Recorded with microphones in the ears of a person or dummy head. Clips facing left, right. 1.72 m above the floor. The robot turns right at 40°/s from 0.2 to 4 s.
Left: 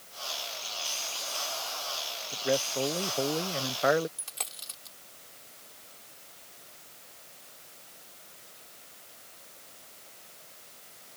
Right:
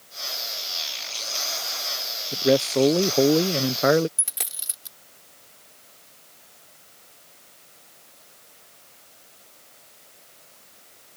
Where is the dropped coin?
15° right (ahead or behind).